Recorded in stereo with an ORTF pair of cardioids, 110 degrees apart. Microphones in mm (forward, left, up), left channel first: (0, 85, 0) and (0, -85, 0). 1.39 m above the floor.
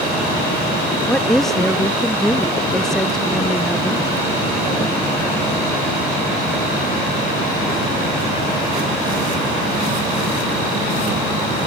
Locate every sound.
1.1 s a woman speaking: straight ahead